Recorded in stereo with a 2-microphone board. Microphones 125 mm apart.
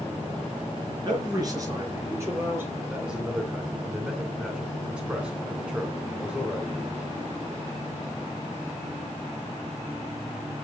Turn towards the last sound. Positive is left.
turn(degrees=-5)  # may be behind; listen again after turning